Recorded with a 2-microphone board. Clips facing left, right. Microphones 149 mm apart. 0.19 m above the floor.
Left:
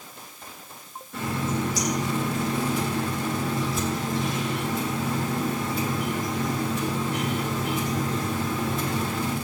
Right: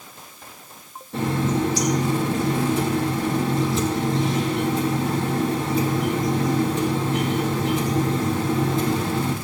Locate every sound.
1.1 s a running tap: 30° right (ahead or behind), 4 m